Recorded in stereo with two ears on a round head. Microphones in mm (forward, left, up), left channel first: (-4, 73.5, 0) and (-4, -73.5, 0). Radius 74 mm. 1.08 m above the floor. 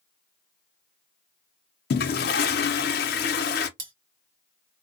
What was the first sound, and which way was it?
A toilet flushing, 65° left (ahead or behind).